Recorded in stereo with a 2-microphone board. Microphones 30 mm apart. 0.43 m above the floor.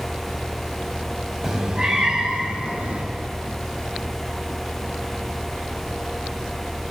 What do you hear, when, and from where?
1.4 s a cat meowing: 10° right (ahead or behind), 1.5 m; by 3.0 s 45° right (ahead or behind), 3 m